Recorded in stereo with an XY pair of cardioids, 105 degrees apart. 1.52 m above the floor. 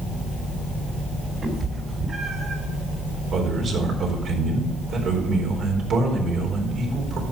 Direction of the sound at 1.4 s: 45° right.